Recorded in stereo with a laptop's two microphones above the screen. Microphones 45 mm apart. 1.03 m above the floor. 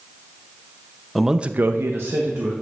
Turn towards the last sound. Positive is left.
turn(degrees=-65)  # may be behind; listen again after turning